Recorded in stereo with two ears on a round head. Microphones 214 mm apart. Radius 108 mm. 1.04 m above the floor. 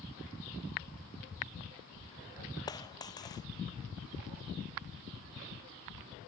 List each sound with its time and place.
2.7 s a dropped coin: 15° left (ahead or behind)